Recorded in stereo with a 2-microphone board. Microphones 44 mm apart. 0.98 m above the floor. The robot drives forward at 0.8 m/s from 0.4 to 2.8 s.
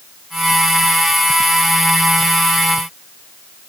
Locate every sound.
Only background noise.